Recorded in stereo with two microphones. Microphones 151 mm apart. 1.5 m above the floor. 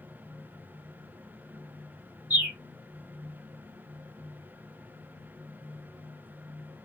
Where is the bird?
10° right (ahead or behind), 1.2 m.